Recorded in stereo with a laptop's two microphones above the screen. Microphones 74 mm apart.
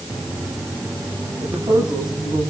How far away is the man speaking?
About 10 m.